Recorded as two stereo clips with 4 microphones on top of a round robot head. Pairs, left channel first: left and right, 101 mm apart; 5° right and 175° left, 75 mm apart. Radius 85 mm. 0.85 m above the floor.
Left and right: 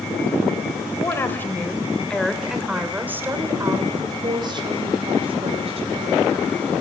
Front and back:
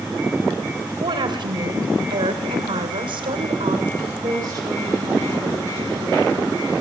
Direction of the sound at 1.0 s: 155° left.